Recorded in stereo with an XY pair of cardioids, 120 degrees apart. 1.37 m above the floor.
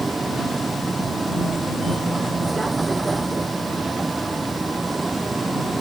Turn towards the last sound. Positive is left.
turn(degrees=-20)